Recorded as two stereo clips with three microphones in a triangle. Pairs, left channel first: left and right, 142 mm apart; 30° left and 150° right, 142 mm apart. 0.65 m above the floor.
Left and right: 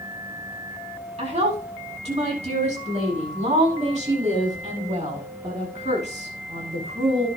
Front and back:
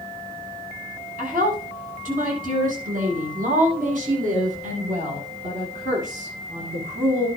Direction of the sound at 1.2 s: 130° right.